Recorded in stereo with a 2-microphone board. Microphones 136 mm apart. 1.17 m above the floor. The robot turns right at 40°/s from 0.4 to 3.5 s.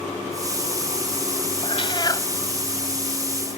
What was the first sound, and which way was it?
A cat meowing, 45° left (ahead or behind).